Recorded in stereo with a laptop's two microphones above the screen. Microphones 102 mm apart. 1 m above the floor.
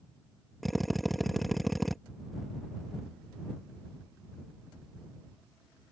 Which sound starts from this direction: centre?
A drill, at 0.6 s.